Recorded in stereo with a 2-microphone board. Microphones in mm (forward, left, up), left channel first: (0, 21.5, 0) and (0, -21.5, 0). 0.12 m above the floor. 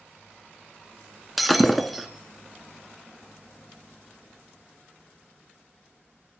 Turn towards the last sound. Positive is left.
turn(degrees=0)  # may be behind; listen again after turning